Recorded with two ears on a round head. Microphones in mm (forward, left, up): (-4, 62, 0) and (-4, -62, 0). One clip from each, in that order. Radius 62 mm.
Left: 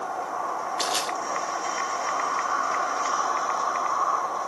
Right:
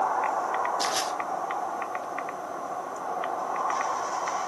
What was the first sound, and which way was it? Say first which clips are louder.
Crushing: left 1 dB; 80° left.